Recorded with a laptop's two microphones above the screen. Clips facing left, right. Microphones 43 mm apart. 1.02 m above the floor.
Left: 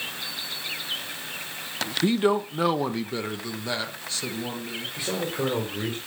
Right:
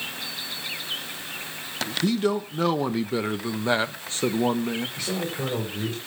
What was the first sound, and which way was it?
A man speaking, 30° left (ahead or behind).